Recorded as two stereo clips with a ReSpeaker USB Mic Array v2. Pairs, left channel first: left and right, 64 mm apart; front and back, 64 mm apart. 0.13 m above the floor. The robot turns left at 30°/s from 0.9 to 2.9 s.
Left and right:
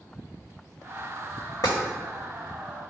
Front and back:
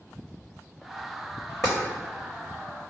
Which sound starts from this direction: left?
Tapping, at 1.6 s.